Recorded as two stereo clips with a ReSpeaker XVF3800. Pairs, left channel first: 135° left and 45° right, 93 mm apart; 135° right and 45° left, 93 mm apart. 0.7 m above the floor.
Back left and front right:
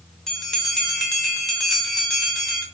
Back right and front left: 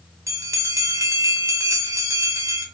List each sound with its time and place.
0.3 s a bell: 55° left, 0.8 m